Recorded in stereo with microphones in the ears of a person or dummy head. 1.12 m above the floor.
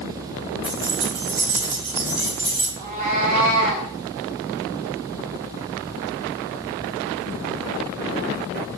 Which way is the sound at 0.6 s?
5° right (ahead or behind).